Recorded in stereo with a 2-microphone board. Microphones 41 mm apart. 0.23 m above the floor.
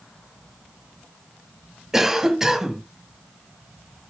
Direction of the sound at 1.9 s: 10° right (ahead or behind).